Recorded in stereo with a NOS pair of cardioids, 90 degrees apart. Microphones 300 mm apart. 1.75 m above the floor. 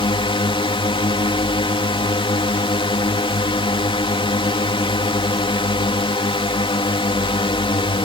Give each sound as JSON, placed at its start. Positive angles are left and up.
{"t": 0.0, "sound": "a drone", "azimuth_deg": 15}